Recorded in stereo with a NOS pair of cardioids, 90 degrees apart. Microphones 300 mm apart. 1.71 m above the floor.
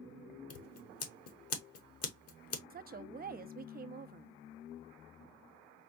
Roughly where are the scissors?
Ahead left.